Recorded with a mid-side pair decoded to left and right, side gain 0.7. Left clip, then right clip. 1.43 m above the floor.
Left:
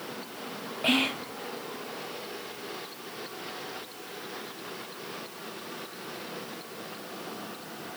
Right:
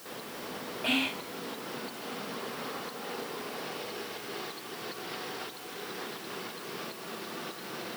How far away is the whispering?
About 0.7 m.